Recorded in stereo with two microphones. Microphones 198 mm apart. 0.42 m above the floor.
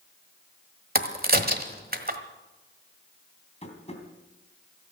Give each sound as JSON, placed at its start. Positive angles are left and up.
{"t": 0.9, "sound": "a crack", "side_deg": -50, "distance_m": 1.3}
{"t": 3.6, "sound": "tapping", "side_deg": 35, "distance_m": 3.0}